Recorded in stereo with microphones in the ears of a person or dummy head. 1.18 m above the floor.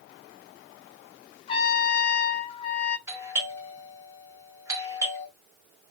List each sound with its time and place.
1.5 s a trumpet: 35° left (ahead or behind), 0.7 m
3.1 s a doorbell: 15° right (ahead or behind), 0.8 m